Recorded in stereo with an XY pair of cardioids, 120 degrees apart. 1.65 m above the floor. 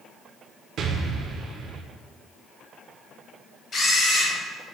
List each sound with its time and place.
0.8 s an explosion: 60° right, 1.1 m
3.7 s a camera shutter: 35° left, 3.5 m